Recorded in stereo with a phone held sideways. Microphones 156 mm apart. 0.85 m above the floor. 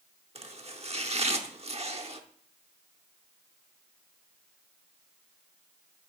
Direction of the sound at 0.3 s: 45° right (ahead or behind).